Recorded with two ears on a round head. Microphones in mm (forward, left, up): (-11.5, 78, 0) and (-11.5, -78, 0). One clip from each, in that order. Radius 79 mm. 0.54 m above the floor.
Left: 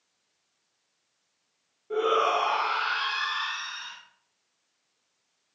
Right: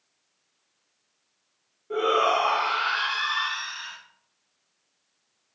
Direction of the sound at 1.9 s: 5° right (ahead or behind).